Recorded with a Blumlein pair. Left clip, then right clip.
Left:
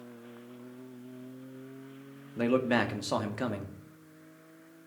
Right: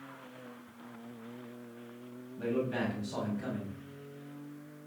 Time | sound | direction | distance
2.4 | a man speaking | 50° left | 1.7 m